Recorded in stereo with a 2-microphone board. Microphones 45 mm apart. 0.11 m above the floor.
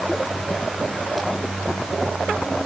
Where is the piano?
No piano in this recording.